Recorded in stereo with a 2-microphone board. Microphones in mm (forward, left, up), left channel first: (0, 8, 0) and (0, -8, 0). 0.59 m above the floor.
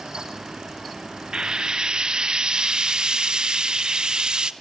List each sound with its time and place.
1.3 s frying: 65° right (ahead or behind), 1.0 m